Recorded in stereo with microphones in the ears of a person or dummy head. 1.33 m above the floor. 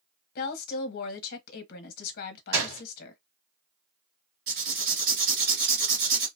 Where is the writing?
50° right (ahead or behind), 1.9 m.